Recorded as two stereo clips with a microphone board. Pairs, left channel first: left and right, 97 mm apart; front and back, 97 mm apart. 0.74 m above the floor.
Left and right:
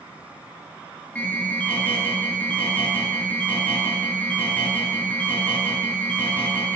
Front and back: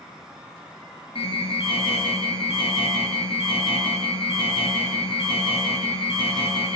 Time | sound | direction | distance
1.1 | an alarm | 15° left | 9.5 m